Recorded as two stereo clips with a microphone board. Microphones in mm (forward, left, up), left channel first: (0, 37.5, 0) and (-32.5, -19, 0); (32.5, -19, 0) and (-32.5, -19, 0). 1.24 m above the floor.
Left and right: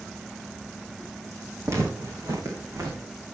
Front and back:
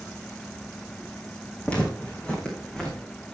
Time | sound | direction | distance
1.6 | footsteps | 70° right | 2.5 m